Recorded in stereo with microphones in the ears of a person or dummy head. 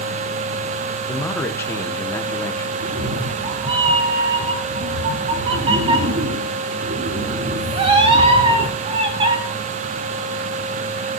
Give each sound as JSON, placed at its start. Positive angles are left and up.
{"t": 1.1, "sound": "a man speaking", "side_deg": 15, "distance_m": 1.1}
{"t": 2.8, "sound": "a cat meowing", "side_deg": -30, "distance_m": 1.1}